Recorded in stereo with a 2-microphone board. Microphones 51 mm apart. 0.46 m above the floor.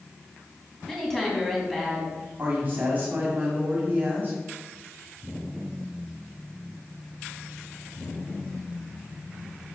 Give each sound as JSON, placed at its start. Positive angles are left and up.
{"t": 0.9, "sound": "a woman speaking", "side_deg": 10, "distance_m": 3.5}
{"t": 2.4, "sound": "a woman speaking", "side_deg": -35, "distance_m": 2.5}